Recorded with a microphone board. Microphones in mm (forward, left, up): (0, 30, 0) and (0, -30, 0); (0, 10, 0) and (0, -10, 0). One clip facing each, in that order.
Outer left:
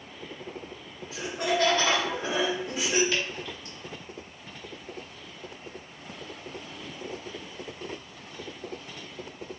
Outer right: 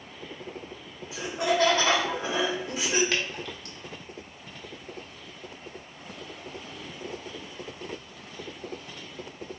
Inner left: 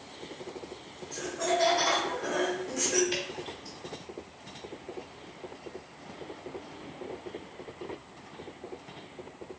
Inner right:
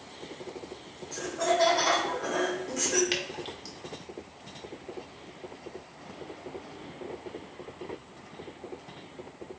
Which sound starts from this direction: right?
Dripping, at 3.1 s.